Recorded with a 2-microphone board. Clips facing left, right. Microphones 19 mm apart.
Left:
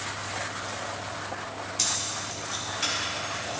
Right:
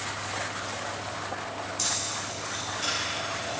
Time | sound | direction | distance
1.8 | keys jangling | 35° left (ahead or behind) | 2.5 m